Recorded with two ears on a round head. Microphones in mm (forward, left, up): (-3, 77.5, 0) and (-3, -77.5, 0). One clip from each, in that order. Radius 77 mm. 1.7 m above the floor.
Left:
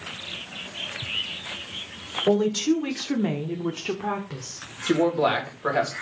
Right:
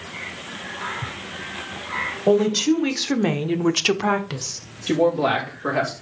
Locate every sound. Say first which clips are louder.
2.3 s a woman speaking: right 4 dB; centre (ahead or behind), 2 m; by 4.6 s 55° right (ahead or behind), 1.4 m
4.9 s a man speaking: right 2 dB; 40° left (ahead or behind), 3 m